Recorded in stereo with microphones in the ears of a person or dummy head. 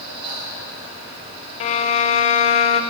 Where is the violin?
40° left (ahead or behind), 0.6 m.